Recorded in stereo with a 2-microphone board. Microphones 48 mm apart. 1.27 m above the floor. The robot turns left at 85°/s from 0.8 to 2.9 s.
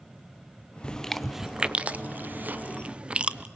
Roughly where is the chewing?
Centre.